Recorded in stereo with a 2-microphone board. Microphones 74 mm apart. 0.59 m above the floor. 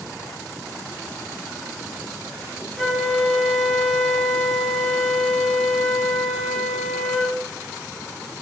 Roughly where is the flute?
Centre.